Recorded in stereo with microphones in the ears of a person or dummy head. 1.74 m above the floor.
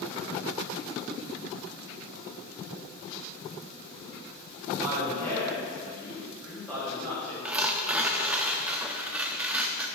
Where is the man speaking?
Centre (ahead or behind), 3 m.